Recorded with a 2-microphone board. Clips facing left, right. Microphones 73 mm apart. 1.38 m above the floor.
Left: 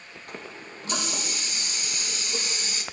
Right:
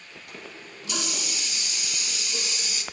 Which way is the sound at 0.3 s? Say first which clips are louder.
Left 3 dB; 35° left (ahead or behind).